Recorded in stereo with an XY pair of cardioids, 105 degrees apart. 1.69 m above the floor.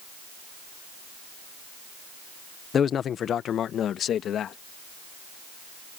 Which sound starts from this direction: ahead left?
A man speaking, at 2.7 s.